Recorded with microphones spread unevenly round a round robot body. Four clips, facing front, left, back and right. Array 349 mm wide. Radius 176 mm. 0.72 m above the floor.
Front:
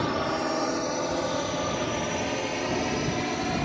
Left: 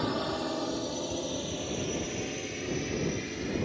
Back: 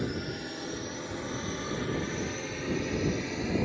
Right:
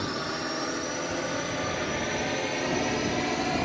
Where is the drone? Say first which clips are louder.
Left 1 dB, front 8 dB; 10° left; by 3.7 s 55° right.